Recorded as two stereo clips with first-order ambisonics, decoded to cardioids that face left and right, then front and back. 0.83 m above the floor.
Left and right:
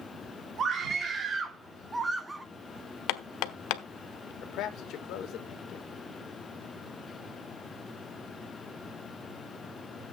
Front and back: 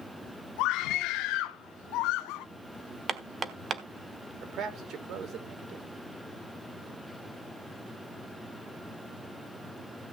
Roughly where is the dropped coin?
I don't hear a dropped coin.